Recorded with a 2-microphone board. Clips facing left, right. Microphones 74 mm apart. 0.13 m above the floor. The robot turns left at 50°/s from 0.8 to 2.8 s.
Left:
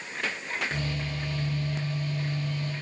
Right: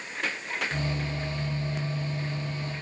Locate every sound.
Only background noise.